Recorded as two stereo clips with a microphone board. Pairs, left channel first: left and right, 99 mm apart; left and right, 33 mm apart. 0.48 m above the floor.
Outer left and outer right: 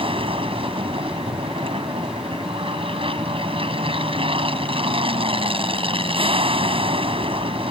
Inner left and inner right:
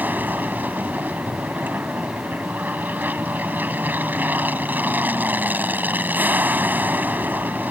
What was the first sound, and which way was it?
An aircraft, 65° right (ahead or behind).